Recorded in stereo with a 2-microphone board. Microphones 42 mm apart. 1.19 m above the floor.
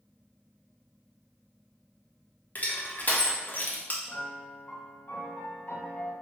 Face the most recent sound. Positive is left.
turn(degrees=50)  # may be behind; listen again after turning